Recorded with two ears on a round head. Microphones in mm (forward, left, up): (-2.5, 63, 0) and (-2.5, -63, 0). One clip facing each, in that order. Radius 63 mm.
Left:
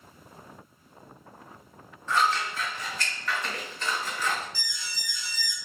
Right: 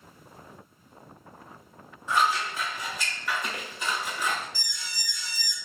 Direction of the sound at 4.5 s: 35° right (ahead or behind).